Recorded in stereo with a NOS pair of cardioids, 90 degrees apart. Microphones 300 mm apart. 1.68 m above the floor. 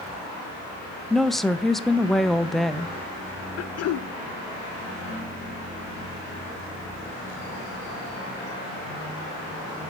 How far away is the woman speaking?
About 0.6 m.